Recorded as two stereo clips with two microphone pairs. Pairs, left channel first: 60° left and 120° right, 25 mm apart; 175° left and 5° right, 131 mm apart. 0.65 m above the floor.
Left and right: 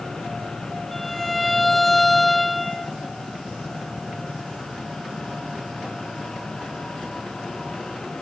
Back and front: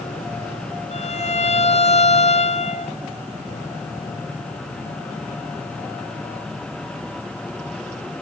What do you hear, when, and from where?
0.9 s a violin: 140° left, 0.7 m